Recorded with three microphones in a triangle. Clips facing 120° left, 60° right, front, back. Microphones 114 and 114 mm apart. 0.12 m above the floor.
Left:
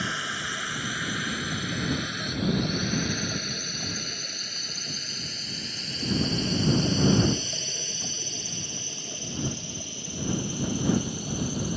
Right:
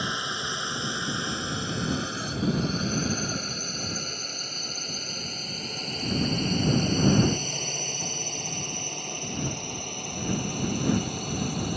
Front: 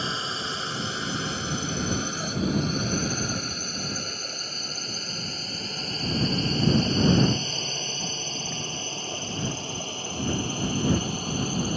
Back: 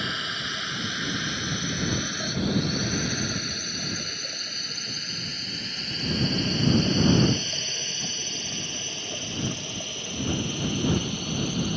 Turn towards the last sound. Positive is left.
turn(degrees=-50)